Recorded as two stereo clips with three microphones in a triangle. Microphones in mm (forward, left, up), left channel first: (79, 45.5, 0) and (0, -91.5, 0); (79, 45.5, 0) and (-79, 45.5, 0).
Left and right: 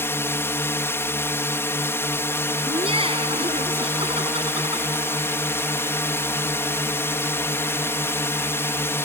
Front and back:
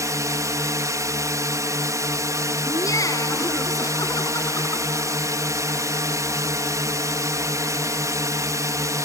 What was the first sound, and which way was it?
A drone, 125° left.